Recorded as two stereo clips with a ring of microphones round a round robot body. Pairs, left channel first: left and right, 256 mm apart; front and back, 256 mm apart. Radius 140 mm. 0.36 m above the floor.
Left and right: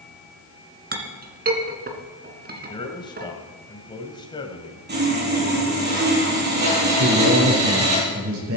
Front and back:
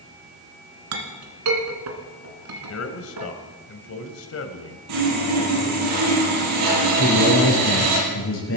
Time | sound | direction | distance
0.9 | a clink | 145° right | 2.5 m
2.7 | a man speaking | 15° left | 2.0 m
4.9 | sawing | 140° right | 7.5 m
7.0 | a man speaking | 45° right | 7.5 m